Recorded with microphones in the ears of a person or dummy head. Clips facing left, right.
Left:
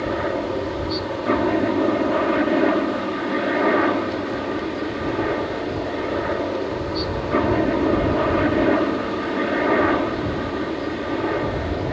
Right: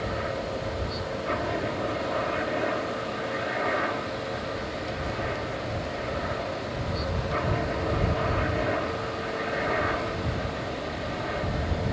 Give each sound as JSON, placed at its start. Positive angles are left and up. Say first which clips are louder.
{"t": 0.0, "sound": "a helicopter", "louder": "left 8 dB", "side_deg": 65}